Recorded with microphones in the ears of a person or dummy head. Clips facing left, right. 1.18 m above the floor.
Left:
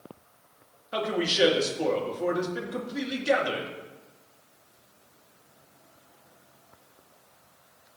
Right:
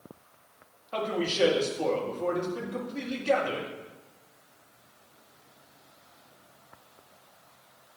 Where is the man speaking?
20° left (ahead or behind), 2 m.